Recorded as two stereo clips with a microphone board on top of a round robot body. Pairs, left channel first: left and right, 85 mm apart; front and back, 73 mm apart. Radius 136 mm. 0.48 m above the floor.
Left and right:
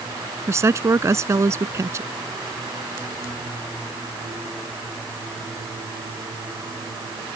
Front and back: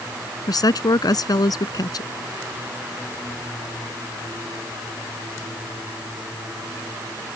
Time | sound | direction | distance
0.5 | a woman speaking | 35° right | ?